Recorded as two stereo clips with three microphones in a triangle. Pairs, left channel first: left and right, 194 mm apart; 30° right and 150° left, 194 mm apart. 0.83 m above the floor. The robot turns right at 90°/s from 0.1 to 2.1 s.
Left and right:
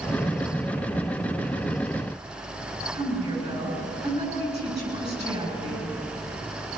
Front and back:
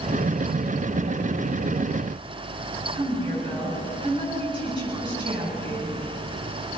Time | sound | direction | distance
2.9 | a woman speaking | 145° right | 7.5 m